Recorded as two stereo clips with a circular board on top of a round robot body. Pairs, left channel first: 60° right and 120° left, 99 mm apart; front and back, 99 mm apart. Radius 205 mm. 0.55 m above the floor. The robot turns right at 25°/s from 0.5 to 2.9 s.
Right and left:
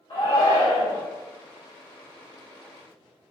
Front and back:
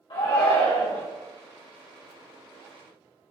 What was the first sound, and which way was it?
A shout, 15° right.